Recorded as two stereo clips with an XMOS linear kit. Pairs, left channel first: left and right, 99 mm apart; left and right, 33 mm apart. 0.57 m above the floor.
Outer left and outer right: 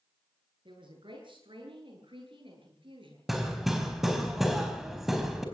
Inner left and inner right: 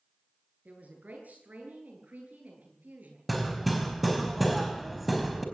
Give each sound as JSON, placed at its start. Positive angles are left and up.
{"t": 0.7, "sound": "a woman speaking", "side_deg": -60, "distance_m": 9.5}
{"t": 3.3, "sound": "hammering", "side_deg": 0, "distance_m": 4.0}